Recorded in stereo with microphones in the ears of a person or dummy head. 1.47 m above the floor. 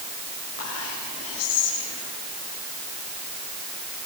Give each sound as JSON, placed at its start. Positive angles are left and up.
{"t": 0.6, "sound": "whispering", "side_deg": 70, "distance_m": 8.5}